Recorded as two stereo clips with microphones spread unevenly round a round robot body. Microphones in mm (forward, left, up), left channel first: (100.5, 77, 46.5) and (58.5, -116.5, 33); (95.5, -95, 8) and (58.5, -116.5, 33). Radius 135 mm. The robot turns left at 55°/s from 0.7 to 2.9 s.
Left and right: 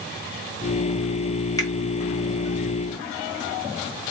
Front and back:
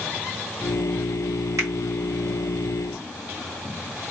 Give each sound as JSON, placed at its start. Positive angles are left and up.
{"t": 1.6, "sound": "a finger snap", "azimuth_deg": 155, "distance_m": 0.9}